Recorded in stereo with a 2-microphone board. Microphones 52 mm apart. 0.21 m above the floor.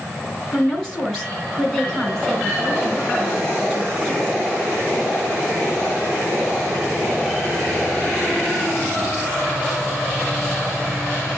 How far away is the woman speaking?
About 2 m.